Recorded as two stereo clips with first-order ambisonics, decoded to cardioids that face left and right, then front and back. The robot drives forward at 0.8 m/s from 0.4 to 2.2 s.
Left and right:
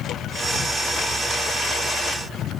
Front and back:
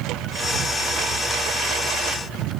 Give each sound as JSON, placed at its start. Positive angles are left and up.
{"t": 0.0, "sound": "a lawn mower", "azimuth_deg": 140}